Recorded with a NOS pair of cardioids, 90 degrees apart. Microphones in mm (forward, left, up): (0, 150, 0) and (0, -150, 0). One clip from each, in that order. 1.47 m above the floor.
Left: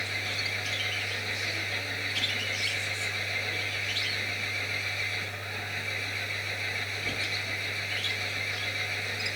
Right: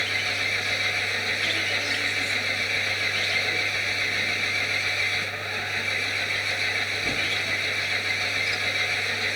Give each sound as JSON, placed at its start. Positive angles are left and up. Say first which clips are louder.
{"t": 0.0, "sound": "an engine running", "louder": "right 6 dB", "azimuth_deg": -50}